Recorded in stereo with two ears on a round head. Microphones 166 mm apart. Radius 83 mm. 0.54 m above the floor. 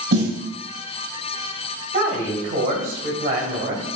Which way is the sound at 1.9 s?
45° right (ahead or behind).